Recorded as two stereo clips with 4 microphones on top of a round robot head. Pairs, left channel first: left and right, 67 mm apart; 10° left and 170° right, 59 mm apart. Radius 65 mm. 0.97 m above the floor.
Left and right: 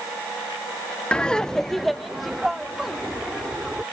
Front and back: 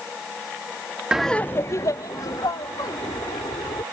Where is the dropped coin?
I don't hear a dropped coin.